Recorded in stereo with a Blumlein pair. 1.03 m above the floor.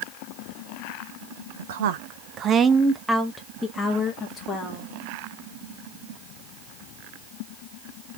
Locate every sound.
1.6 s a woman speaking: 65° right, 0.9 m; by 4.9 s 30° left, 1.8 m